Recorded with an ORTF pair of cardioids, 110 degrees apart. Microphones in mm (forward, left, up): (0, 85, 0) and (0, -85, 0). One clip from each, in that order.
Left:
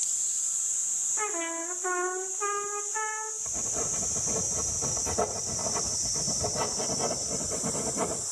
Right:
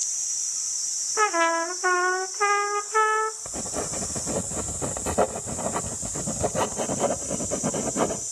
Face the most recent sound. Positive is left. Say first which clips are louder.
# right 1 dB
turn(degrees=-55)